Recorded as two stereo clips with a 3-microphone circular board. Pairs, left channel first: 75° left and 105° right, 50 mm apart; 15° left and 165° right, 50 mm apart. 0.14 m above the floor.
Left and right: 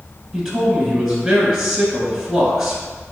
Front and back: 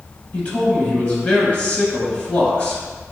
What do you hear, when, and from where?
0.3 s a man speaking: 30° right, 1.8 m